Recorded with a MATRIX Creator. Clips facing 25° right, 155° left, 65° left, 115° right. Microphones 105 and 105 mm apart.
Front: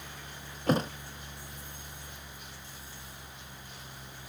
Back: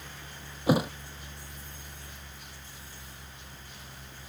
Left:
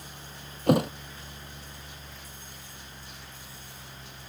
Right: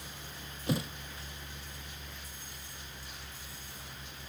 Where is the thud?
80° left.